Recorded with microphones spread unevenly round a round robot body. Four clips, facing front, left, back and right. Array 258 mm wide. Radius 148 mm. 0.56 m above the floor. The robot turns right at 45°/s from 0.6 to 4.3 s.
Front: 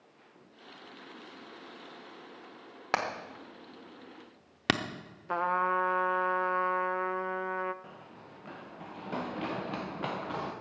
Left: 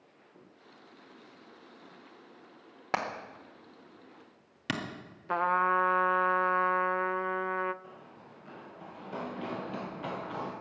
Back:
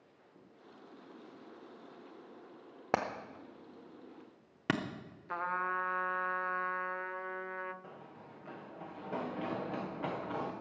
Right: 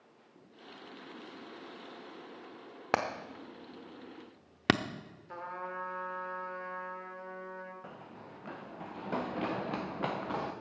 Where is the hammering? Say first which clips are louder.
Right 1 dB, front 2 dB; 135° right, 0.6 m; by 4.8 s 75° right, 0.6 m.